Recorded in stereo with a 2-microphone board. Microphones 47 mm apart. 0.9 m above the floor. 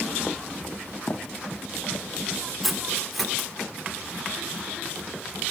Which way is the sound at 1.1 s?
45° left (ahead or behind).